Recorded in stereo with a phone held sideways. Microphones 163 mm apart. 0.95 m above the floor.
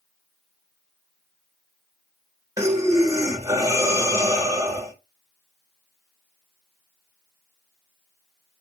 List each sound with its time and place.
2.6 s breathing: 20° right (ahead or behind), 0.8 m